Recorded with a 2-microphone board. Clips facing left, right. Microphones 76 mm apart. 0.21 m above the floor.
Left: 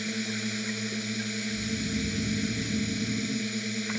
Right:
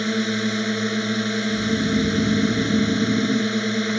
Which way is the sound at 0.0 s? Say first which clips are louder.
Right 10 dB; 65° right (ahead or behind).